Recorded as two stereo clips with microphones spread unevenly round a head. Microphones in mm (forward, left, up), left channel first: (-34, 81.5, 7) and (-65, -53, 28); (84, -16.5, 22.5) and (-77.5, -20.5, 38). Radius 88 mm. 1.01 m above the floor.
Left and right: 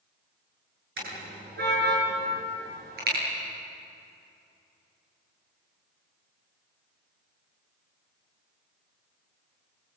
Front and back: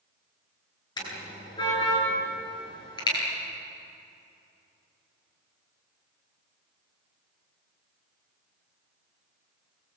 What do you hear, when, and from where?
1.0 s a car horn: 65° right, 8.5 m